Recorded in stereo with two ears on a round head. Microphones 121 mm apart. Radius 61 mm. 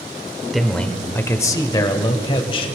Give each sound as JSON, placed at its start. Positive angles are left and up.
{"t": 0.5, "sound": "a man speaking", "side_deg": 0, "distance_m": 1.0}